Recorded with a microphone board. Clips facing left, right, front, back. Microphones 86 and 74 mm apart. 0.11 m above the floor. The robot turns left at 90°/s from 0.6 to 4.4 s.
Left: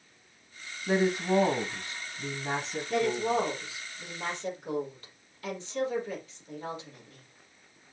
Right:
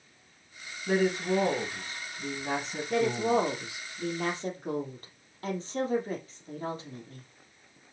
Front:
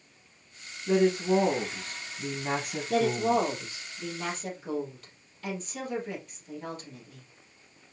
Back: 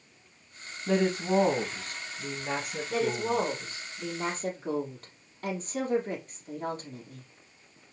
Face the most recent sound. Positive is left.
turn(degrees=-135)